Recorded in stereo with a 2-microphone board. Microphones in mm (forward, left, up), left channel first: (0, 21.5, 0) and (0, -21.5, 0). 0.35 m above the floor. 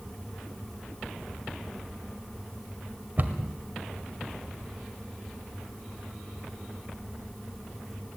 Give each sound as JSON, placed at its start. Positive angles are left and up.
{"t": 3.2, "sound": "a cupboard door", "side_deg": -45, "distance_m": 1.7}